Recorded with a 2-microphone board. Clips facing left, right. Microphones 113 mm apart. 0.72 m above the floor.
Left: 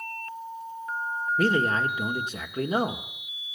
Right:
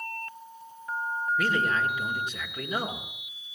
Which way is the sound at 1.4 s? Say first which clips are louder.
Left 4 dB; 35° left (ahead or behind).